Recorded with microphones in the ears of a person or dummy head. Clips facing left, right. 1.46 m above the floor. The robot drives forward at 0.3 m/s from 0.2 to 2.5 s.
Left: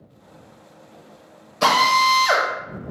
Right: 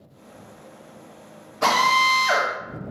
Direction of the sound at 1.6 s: 50° left (ahead or behind).